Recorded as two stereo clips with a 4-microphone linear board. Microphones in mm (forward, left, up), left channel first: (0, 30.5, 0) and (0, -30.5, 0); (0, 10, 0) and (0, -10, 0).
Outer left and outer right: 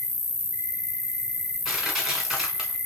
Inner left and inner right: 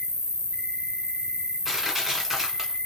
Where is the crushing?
5° right (ahead or behind), 1.5 m.